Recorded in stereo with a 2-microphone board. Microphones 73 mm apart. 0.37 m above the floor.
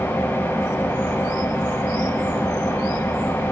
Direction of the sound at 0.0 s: 30° left (ahead or behind).